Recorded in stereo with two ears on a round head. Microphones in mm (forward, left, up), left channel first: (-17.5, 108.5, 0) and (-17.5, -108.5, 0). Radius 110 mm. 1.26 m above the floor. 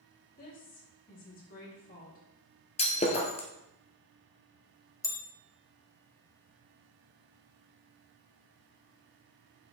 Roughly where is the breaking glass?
Left.